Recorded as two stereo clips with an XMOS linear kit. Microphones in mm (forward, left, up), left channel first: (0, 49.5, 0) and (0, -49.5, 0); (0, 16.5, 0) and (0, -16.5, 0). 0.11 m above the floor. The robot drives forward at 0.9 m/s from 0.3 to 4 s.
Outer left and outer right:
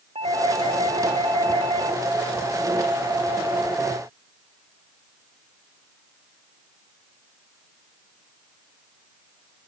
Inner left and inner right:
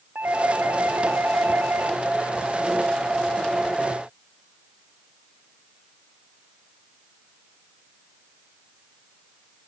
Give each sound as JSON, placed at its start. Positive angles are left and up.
{"t": 0.1, "sound": "a doorbell", "side_deg": -75}